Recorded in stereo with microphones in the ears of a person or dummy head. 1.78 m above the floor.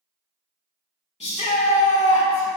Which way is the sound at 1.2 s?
40° left (ahead or behind).